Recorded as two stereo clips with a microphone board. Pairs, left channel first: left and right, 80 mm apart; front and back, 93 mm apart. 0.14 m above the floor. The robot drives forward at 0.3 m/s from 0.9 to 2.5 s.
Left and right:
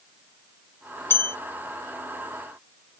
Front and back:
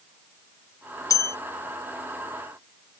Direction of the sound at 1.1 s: 40° left.